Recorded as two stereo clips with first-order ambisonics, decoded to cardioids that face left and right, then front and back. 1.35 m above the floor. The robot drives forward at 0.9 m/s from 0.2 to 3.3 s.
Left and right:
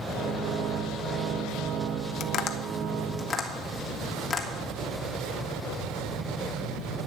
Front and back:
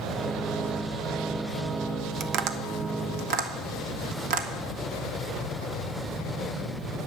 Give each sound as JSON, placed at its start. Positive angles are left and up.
{"t": 2.2, "sound": "tapping", "azimuth_deg": 135, "distance_m": 0.8}